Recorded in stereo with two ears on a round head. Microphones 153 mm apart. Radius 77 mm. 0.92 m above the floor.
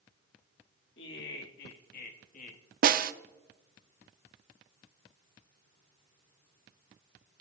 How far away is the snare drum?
About 0.5 m.